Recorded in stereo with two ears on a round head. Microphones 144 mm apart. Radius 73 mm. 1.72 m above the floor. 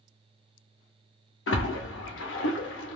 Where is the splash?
85° left, 0.8 m.